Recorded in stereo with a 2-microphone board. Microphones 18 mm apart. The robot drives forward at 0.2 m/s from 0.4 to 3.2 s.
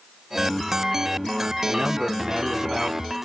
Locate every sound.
1.6 s a man speaking: 45° right (ahead or behind), 1.7 m